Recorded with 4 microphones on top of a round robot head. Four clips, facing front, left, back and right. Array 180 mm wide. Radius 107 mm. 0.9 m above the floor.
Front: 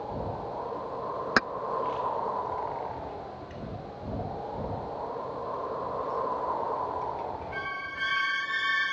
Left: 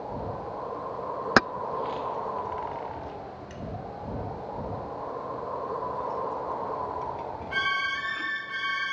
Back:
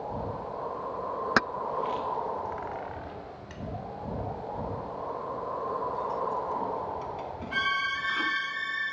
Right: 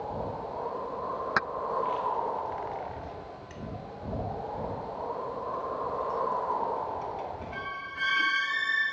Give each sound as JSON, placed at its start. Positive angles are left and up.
{"t": 1.4, "sound": "keys jangling", "azimuth_deg": 85}